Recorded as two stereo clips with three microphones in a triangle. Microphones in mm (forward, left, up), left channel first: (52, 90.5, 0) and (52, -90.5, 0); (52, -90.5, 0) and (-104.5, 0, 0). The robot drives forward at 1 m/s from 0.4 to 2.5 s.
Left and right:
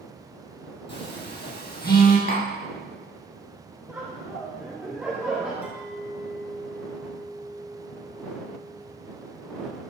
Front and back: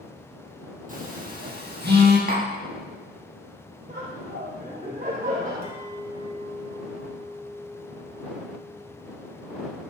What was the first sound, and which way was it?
A phone buzzing, 110° left.